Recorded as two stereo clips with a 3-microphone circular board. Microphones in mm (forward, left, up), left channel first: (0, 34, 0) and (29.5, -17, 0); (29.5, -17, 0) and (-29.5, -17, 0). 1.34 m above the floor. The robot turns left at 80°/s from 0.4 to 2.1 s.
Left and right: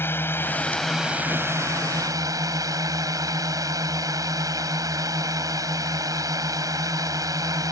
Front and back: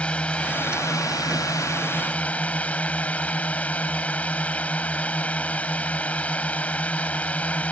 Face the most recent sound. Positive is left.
turn(degrees=-65)